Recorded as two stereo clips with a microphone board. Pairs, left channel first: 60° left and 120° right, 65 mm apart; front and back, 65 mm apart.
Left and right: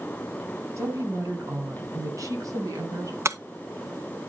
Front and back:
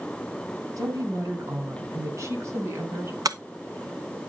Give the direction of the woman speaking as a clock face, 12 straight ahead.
5 o'clock.